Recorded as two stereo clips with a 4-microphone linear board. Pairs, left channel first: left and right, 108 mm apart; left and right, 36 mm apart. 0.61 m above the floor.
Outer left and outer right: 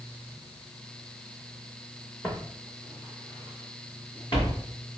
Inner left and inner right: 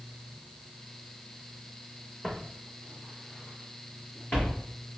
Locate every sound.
2.2 s footsteps: 25° left (ahead or behind), 3 m; by 4.6 s 45° left (ahead or behind), 5.5 m